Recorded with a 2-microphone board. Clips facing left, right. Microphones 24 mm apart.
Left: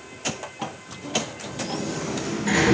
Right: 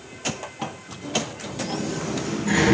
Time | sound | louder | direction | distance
1.6 | a sliding door | right 1 dB | 30° left (ahead or behind) | 4.5 m